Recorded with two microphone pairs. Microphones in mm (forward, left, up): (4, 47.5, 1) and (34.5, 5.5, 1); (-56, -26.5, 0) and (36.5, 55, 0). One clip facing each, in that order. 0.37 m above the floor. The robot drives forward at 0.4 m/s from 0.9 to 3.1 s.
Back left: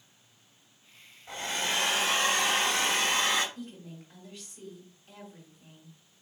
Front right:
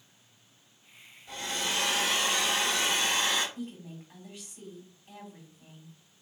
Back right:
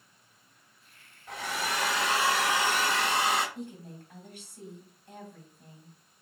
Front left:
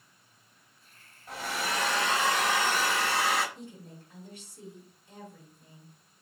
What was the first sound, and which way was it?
A hair dryer, 125° left.